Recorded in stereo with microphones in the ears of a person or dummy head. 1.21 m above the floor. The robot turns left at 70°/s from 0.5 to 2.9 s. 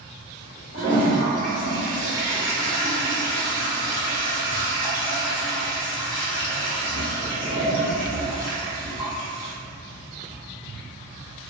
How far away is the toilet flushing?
About 0.6 m.